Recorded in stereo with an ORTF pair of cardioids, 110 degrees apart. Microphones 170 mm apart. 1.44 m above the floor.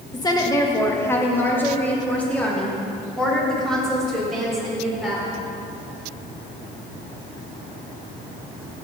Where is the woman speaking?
25° left, 1.7 m; by 5.2 s straight ahead, 5 m.